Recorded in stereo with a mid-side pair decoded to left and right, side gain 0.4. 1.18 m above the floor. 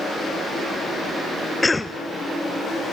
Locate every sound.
1.6 s a cough: 20° left, 0.7 m